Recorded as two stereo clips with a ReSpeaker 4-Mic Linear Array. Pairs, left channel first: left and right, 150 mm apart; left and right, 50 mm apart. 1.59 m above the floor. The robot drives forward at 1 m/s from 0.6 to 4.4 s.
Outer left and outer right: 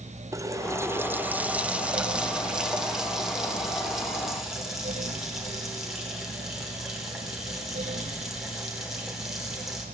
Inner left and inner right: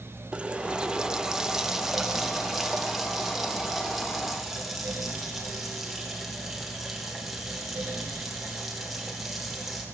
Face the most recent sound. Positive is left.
turn(degrees=-5)  # may be behind; listen again after turning